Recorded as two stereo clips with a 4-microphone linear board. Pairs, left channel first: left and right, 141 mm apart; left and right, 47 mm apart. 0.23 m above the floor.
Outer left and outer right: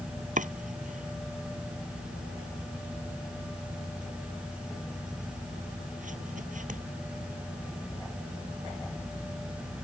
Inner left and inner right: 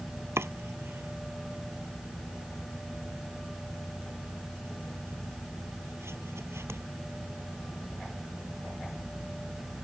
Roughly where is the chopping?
Right.